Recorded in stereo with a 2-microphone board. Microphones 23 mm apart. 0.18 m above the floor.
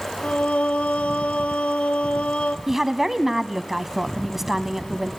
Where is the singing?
80° left, 0.6 m.